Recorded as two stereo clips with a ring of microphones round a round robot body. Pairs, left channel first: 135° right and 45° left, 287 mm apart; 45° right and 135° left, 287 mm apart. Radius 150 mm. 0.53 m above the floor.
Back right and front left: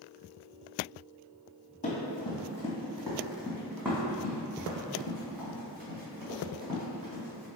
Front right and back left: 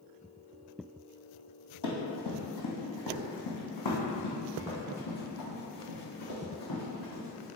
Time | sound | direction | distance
1.8 | running footsteps | 70° right | 1.4 m